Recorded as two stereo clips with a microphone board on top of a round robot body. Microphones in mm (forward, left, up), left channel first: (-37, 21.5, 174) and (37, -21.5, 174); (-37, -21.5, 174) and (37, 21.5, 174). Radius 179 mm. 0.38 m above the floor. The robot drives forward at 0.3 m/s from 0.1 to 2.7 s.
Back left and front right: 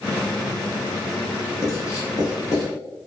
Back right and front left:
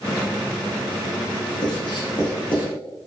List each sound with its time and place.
1.6 s writing: 160° right, 1.0 m; by 2.7 s 165° right, 1.2 m